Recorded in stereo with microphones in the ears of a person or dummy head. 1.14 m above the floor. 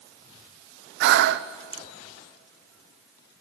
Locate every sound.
1.0 s breathing: 65° right (ahead or behind), 0.7 m